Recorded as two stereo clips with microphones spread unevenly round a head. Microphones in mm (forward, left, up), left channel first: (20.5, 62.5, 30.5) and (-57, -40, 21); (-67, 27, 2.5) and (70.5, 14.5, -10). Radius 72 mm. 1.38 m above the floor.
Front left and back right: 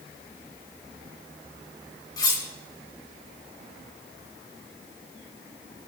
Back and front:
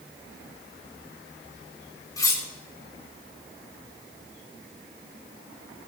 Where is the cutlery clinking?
110° left, 2.5 m.